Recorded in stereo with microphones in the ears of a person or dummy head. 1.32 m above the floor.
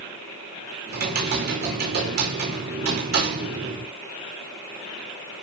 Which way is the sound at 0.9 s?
55° right (ahead or behind).